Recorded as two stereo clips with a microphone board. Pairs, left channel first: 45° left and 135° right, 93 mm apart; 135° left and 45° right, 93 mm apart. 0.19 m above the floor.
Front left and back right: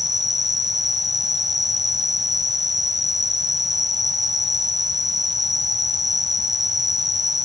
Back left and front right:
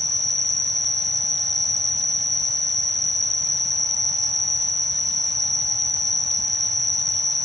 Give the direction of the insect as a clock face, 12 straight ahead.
3 o'clock.